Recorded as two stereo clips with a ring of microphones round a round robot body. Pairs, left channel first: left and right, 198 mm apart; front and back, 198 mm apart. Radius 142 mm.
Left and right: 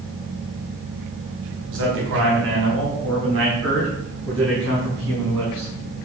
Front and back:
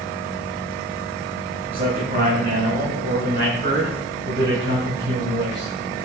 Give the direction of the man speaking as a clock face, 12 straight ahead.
4 o'clock.